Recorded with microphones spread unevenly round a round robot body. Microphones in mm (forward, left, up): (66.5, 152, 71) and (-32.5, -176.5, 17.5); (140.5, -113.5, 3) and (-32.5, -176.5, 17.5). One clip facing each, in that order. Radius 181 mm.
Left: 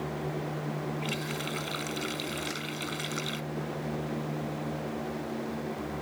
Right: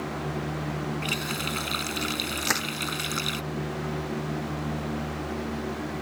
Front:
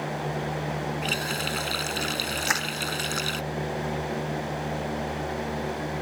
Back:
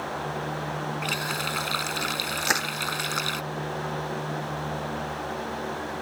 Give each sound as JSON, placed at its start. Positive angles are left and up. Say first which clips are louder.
{"t": 1.0, "sound": "a running tap", "louder": "right 2 dB, front 2 dB", "azimuth_deg": -40}
{"t": 2.4, "sound": "crushing", "louder": "right 4 dB, back 1 dB", "azimuth_deg": -105}